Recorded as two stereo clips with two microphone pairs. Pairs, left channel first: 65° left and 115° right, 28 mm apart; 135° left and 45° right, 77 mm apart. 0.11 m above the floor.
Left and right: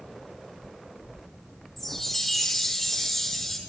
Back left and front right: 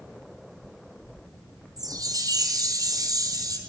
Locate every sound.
1.8 s a chime: 10° right, 2.5 m